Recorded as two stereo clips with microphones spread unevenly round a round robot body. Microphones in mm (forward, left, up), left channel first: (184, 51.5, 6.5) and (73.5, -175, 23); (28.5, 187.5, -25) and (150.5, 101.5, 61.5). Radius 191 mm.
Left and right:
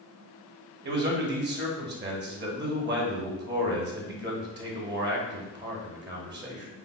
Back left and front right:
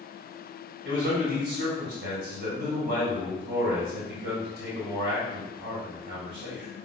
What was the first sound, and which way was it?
A man speaking, 90° right.